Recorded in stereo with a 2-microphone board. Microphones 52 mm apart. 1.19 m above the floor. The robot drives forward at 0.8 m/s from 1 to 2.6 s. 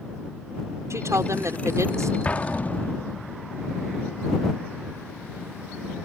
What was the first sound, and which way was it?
A woman speaking, 70° right (ahead or behind).